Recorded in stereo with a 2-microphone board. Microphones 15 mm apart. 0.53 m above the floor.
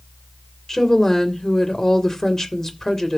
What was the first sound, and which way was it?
A woman speaking, 40° left (ahead or behind).